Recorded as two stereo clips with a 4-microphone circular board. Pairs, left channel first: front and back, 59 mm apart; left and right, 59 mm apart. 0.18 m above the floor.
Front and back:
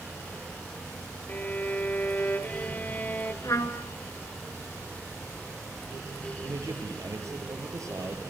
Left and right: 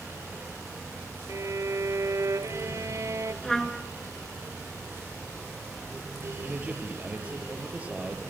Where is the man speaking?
155° right, 4.5 m.